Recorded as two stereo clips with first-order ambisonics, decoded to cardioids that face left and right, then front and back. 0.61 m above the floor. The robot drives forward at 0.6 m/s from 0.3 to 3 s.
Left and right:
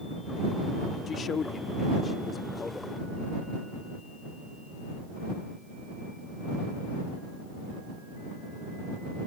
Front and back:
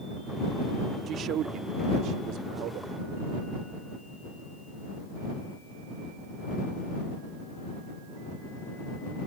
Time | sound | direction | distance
1.1 | a man speaking | 140° left | ?